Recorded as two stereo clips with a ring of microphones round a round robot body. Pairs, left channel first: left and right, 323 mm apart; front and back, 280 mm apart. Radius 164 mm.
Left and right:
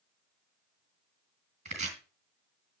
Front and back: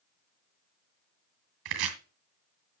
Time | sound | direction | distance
1.6 | chopping | 160° right | 2 m